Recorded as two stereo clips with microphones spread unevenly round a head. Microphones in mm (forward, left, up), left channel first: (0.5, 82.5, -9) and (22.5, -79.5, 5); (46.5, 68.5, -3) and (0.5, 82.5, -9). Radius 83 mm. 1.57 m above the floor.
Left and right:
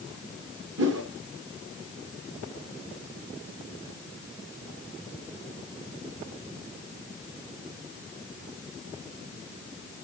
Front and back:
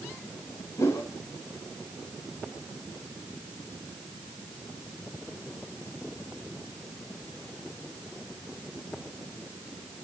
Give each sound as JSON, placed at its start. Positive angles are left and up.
{"t": 0.8, "sound": "a whoosh", "azimuth_deg": -70, "distance_m": 2.5}